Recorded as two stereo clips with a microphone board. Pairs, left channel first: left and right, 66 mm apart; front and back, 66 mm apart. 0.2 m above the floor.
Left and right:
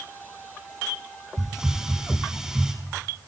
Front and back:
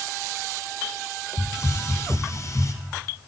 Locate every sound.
1.4 s a hiss: 10° right, 1.5 m